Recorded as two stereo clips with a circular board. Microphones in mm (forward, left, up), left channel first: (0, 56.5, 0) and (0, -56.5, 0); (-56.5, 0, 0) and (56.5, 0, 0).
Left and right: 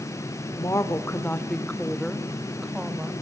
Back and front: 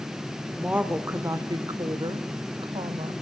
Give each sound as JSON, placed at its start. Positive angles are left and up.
{"t": 0.6, "sound": "a woman speaking", "azimuth_deg": 70, "distance_m": 1.3}